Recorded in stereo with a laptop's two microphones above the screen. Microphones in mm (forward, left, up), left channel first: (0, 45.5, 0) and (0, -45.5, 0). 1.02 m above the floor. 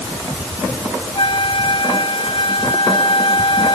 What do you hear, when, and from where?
1.1 s a flute: 75° left (ahead or behind)